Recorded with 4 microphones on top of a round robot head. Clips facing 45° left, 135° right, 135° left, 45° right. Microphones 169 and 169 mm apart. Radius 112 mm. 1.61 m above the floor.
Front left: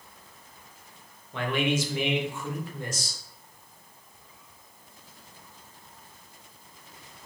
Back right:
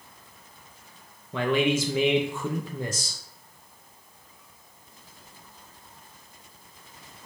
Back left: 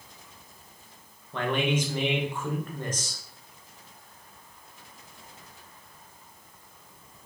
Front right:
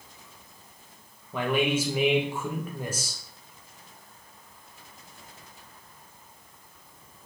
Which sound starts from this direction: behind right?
A man speaking, at 1.3 s.